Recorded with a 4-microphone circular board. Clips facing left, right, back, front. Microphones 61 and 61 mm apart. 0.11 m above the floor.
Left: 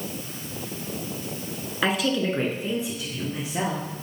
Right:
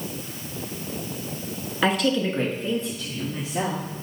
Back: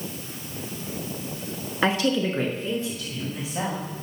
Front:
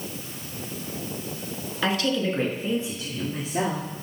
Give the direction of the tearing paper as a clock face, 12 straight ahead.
I don't hear tearing paper.